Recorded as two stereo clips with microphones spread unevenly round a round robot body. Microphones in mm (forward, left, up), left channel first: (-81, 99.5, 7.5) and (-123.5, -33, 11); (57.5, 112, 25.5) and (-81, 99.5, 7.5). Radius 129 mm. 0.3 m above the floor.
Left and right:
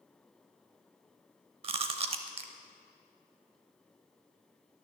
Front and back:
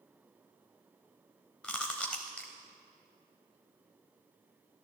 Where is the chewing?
80° right, 0.5 m.